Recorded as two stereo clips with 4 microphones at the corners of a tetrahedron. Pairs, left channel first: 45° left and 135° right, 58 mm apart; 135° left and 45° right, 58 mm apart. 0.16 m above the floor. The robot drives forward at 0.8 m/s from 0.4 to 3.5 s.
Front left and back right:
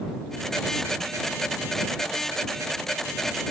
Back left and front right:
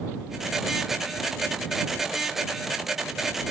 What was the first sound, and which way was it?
Only background noise.